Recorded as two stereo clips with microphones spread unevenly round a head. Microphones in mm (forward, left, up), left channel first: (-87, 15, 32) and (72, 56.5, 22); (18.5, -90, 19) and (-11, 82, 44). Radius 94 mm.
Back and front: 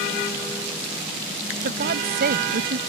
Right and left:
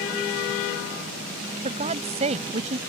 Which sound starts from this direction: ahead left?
A woman speaking, at 1.6 s.